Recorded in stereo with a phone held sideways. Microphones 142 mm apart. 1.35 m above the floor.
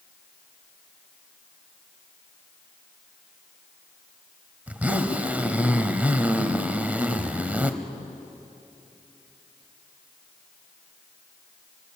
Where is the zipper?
10° right (ahead or behind), 1.2 m.